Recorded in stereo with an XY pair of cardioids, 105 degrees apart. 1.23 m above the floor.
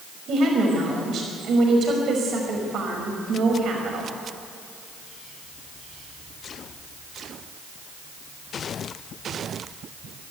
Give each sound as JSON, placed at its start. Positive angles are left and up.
{"t": 0.3, "sound": "a woman speaking", "azimuth_deg": -60, "distance_m": 5.5}